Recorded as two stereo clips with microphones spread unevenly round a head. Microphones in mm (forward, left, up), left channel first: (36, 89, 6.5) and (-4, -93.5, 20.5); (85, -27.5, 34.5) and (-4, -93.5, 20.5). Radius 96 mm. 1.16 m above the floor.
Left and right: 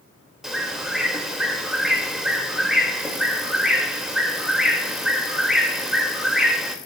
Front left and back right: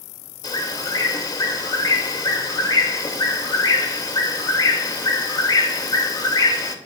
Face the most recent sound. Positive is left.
turn(degrees=-15)